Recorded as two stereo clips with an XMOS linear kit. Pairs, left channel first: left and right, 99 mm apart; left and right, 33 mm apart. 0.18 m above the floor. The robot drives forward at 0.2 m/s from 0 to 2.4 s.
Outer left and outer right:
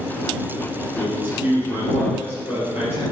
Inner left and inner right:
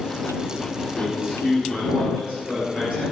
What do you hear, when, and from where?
0.9 s a man speaking: 20° right (ahead or behind), 3 m